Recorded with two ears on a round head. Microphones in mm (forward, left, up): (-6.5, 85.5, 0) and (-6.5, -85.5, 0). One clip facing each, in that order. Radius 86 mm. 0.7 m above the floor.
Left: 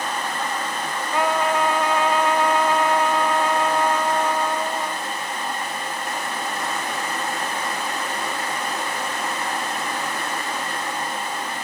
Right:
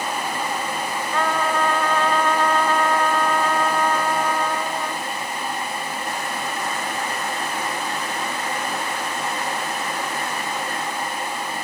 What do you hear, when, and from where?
1.1 s a trumpet: 10° left (ahead or behind), 0.9 m